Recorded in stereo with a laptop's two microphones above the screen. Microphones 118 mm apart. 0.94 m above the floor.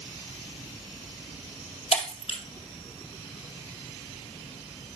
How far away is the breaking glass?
About 1.8 m.